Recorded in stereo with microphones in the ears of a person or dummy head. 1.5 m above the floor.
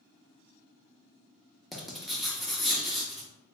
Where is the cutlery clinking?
I don't hear cutlery clinking.